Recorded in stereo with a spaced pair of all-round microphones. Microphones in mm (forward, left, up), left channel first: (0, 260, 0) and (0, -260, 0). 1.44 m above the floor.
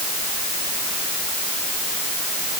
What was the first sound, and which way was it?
Only background noise.